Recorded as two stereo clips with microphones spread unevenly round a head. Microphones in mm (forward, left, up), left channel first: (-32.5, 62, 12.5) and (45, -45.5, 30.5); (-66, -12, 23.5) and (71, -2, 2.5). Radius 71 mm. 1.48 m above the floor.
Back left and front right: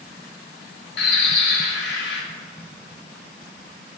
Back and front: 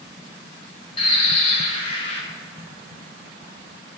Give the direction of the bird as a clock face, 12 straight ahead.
8 o'clock.